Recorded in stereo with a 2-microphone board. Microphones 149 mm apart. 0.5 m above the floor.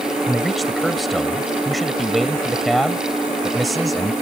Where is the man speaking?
Centre (ahead or behind).